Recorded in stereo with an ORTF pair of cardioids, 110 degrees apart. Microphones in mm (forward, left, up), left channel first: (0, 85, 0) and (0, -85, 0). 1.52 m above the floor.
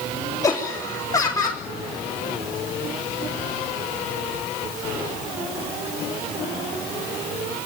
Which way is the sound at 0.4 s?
20° left.